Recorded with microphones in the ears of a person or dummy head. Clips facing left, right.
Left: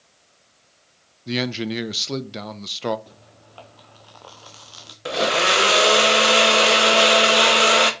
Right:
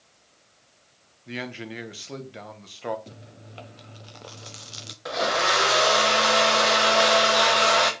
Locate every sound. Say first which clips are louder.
1.3 s a man speaking: left 10 dB; 50° left (ahead or behind), 0.8 m
3.1 s chewing: right 3 dB; 25° right (ahead or behind), 0.8 m
5.0 s a blender: left 4 dB; 35° left (ahead or behind), 1.5 m